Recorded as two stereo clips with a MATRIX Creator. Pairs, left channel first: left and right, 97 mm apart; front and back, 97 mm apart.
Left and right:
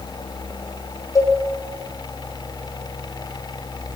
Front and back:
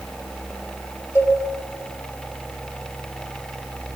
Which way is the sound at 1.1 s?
50° left.